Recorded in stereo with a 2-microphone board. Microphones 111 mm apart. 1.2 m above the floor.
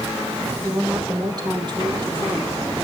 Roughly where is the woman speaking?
Right.